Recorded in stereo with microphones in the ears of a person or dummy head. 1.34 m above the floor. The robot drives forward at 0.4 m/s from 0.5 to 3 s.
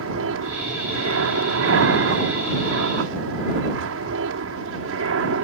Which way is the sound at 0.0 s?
65° right (ahead or behind).